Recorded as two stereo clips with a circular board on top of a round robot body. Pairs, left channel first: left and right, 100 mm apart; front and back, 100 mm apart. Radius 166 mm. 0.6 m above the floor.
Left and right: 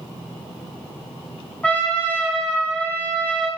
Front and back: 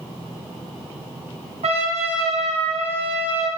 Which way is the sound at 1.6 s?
170° left.